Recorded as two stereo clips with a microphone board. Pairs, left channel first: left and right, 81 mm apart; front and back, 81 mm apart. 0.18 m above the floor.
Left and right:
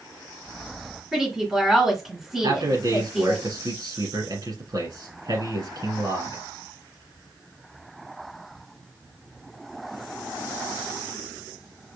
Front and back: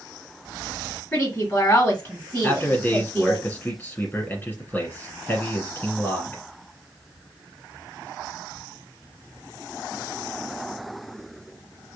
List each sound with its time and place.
1.1 s a woman speaking: 15° right, 1.7 m
2.4 s a man speaking: 65° right, 3 m